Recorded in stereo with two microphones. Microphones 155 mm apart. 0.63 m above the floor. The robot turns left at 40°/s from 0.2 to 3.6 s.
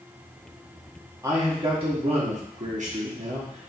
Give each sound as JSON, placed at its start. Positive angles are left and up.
{"t": 1.2, "sound": "a man speaking", "azimuth_deg": -25, "distance_m": 1.0}